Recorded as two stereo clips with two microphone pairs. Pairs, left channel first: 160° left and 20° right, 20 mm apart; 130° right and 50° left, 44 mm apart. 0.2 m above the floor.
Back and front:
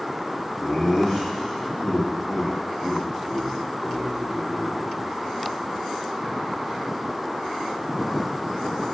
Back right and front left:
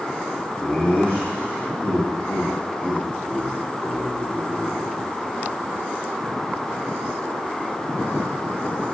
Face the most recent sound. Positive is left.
turn(degrees=-145)